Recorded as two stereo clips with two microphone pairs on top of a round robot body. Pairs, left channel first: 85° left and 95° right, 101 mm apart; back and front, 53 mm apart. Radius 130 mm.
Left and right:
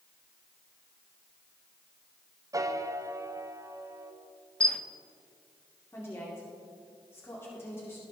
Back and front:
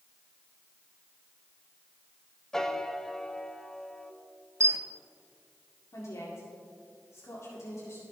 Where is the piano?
80° right, 1.0 m.